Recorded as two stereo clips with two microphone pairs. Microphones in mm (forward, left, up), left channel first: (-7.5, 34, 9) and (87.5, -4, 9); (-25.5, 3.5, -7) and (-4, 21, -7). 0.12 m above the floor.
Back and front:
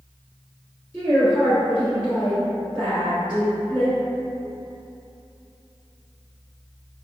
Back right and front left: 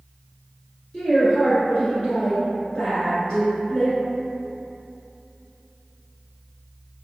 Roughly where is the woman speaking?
Behind right.